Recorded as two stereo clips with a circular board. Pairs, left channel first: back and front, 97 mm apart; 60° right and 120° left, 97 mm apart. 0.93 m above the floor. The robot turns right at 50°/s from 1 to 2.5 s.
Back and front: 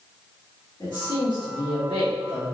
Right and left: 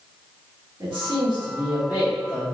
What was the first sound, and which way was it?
A man speaking, 145° left.